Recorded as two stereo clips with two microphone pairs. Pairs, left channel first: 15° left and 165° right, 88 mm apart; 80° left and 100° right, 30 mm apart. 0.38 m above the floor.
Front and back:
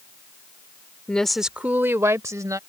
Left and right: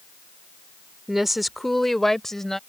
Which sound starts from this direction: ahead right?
A woman speaking, at 1.1 s.